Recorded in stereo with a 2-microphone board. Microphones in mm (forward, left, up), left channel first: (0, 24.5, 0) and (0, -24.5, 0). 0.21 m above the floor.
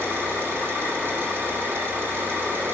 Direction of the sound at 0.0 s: 50° right (ahead or behind).